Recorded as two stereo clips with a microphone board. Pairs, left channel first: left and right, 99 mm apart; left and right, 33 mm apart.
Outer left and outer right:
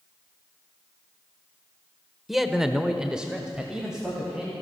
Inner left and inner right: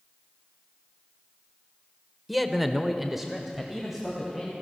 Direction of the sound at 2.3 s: Centre (ahead or behind).